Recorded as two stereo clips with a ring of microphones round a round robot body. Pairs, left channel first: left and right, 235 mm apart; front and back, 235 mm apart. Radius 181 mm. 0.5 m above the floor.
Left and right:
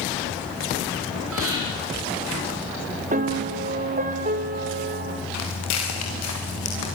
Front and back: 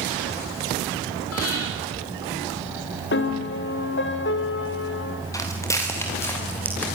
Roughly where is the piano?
Ahead right.